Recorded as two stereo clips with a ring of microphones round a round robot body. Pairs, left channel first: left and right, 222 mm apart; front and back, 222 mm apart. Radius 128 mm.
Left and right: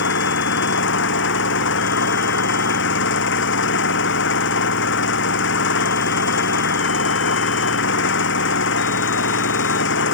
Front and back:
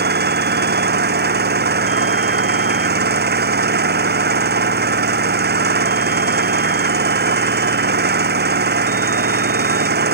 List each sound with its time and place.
0.0 s an engine running: 135° left